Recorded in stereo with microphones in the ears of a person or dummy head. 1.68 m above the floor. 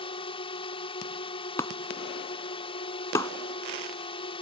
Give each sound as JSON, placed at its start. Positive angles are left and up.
{"t": 0.0, "sound": "a drone", "side_deg": 30}
{"t": 1.6, "sound": "breaking glass", "side_deg": 15}